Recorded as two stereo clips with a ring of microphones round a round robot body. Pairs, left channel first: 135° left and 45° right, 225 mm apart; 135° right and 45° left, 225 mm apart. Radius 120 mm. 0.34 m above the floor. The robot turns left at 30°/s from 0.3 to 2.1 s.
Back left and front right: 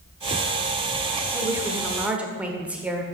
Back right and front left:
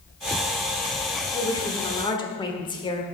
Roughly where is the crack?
No crack in this recording.